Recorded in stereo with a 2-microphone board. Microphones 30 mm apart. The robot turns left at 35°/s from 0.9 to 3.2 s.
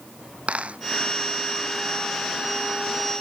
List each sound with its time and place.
0.5 s a dropped coin: 45° right (ahead or behind)